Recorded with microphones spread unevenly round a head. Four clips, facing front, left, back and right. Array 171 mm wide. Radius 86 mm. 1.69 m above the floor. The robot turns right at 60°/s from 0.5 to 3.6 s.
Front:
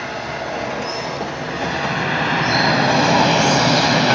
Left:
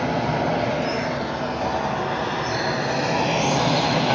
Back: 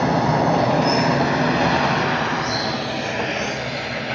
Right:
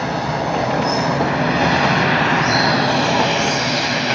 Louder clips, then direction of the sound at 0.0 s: Right 2 dB, back 8 dB; 175° right.